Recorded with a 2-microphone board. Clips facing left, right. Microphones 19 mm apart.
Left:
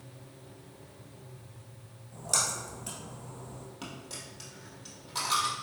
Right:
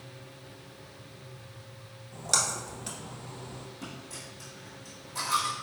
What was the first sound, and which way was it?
A splash, 30° right (ahead or behind).